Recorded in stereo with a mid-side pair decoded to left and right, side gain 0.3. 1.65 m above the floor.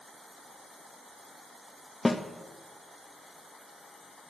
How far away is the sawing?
No sawing in this recording.